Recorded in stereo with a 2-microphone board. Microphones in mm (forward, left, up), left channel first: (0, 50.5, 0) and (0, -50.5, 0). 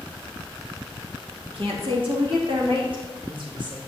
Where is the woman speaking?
70° right (ahead or behind), 1.9 m; by 3.8 s 60° right (ahead or behind), 4.5 m.